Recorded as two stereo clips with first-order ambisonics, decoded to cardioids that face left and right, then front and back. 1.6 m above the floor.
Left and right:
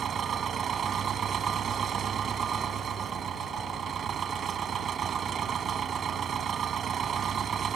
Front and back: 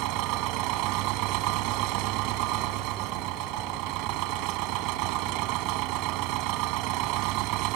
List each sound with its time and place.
0.0 s an engine running: 155° right